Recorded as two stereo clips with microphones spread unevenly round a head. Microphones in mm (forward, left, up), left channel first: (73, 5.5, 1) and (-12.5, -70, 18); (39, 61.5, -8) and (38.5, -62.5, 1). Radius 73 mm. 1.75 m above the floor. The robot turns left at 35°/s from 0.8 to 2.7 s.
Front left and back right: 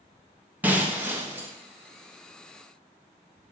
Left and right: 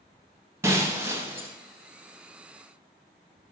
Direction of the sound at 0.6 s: 110° right.